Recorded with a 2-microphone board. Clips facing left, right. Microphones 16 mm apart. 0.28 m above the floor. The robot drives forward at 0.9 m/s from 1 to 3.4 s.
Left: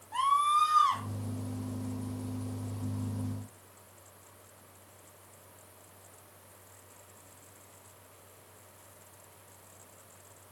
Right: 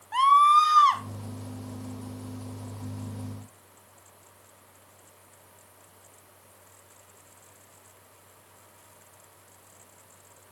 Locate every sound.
0.1 s a scream: 40° right (ahead or behind), 2.0 m